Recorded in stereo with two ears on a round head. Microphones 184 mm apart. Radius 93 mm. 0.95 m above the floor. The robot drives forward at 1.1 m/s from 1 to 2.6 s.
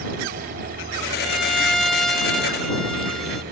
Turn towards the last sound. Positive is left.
turn(degrees=0)  # may be behind; listen again after turning